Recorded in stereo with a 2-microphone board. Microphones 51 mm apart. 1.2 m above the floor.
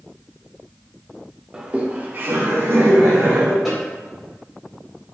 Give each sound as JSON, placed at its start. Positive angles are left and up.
{"t": 1.5, "sound": "laughter", "side_deg": -15, "distance_m": 0.6}
{"t": 3.6, "sound": "a snare drum", "side_deg": -5, "distance_m": 1.8}